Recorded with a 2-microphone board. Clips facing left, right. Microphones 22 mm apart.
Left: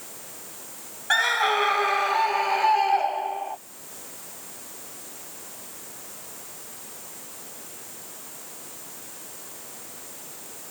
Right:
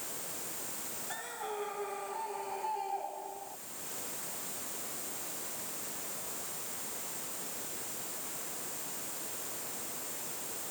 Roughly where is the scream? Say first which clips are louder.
Left 21 dB; left.